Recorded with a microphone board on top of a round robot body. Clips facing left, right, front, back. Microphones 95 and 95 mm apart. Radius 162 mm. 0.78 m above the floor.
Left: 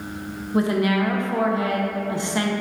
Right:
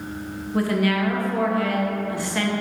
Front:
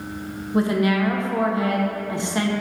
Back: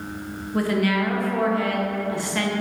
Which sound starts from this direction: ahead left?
A woman speaking, at 0.5 s.